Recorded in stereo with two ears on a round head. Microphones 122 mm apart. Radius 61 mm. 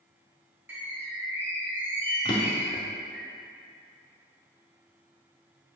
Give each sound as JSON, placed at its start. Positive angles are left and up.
{"t": 0.7, "sound": "a bird", "side_deg": -15, "distance_m": 1.3}
{"t": 2.2, "sound": "a drawer", "side_deg": 35, "distance_m": 1.1}